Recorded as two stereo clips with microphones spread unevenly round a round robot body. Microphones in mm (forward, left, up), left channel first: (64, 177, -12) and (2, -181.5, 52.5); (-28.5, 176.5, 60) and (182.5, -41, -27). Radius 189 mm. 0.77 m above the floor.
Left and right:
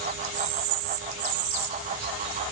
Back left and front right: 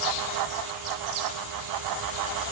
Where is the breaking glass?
I don't hear breaking glass.